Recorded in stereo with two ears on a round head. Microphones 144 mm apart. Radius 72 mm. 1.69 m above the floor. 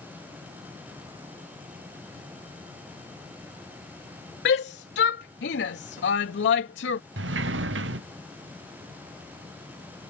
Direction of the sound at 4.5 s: 70° left (ahead or behind).